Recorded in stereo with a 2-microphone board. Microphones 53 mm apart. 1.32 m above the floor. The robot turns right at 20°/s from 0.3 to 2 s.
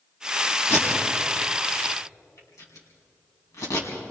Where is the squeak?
I don't hear a squeak.